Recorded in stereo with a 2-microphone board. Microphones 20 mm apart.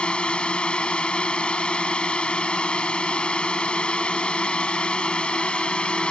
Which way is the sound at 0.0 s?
65° left (ahead or behind).